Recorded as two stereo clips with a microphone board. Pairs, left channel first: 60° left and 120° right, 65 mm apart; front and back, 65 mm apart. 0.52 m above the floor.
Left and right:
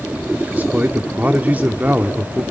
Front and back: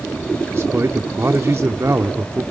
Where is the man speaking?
170° right, 0.9 m.